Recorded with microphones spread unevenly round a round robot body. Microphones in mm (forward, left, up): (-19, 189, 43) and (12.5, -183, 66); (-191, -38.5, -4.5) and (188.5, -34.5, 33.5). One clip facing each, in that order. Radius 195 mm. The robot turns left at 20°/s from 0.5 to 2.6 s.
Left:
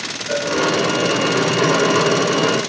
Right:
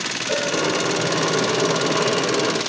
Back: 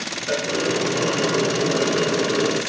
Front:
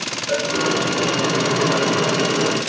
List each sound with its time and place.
0.3 s a cowbell: 165° right, 2 m